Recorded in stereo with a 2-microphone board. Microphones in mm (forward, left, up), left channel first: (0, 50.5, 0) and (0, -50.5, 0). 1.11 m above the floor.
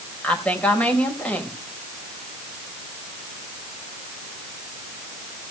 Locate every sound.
0.2 s a woman speaking: 15° left (ahead or behind), 4.5 m